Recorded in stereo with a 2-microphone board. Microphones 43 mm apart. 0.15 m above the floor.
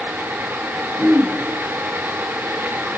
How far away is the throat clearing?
About 1.4 m.